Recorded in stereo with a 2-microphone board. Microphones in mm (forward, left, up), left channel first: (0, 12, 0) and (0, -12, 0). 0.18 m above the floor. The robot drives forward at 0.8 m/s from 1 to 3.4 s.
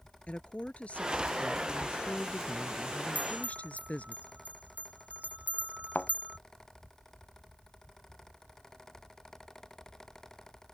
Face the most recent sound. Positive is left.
turn(degrees=75)  # may be behind; listen again after turning